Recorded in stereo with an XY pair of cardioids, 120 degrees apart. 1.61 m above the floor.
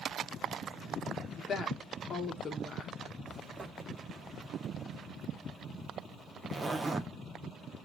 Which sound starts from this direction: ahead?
A zipper, at 3.3 s.